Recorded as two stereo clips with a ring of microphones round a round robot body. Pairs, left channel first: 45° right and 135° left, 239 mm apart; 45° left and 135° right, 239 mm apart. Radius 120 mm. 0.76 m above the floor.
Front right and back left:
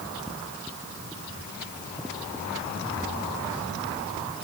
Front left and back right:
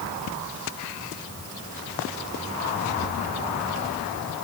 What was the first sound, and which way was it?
Only background noise.